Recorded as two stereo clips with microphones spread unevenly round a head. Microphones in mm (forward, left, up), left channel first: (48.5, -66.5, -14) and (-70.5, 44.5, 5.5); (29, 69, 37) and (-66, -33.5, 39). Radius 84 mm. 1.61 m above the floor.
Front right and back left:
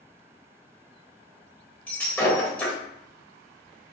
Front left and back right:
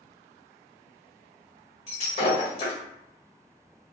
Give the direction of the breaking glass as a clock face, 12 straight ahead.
11 o'clock.